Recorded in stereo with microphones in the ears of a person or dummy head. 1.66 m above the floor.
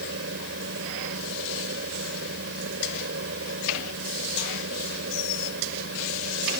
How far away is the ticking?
I don't hear ticking.